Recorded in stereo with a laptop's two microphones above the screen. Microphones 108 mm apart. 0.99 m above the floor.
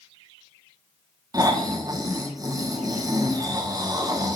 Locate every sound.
1.3 s snoring: 35° right (ahead or behind), 1.0 m